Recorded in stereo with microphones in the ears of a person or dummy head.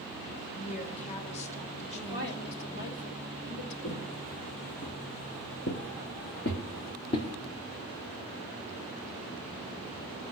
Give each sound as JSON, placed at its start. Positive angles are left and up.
{"t": 0.6, "sound": "a woman speaking", "side_deg": 30, "distance_m": 1.9}
{"t": 1.9, "sound": "a woman speaking", "side_deg": 55, "distance_m": 2.0}
{"t": 3.8, "sound": "footsteps", "side_deg": 40, "distance_m": 2.5}